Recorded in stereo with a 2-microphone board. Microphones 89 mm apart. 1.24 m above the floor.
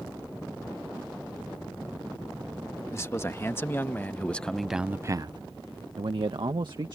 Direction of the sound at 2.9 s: 30° left (ahead or behind).